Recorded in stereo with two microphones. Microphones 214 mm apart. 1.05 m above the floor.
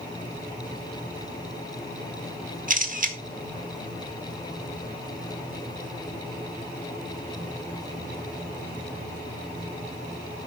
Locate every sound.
2.7 s a camera shutter: 40° right (ahead or behind), 1.7 m